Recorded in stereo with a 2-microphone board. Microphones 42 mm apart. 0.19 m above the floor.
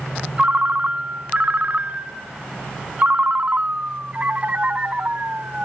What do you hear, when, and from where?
0.4 s a ringtone: 35° right (ahead or behind), 0.8 m